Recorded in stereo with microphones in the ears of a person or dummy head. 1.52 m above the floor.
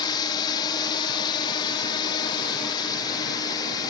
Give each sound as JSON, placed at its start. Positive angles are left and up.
{"t": 0.0, "sound": "a drone", "side_deg": 30}